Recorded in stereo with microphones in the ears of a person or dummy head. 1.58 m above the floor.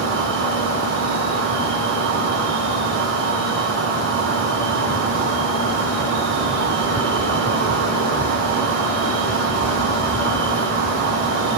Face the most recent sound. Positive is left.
turn(degrees=-75)  # may be behind; listen again after turning